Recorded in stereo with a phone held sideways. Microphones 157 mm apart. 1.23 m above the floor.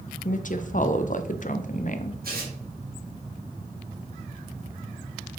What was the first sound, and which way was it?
A woman speaking, 55° left (ahead or behind).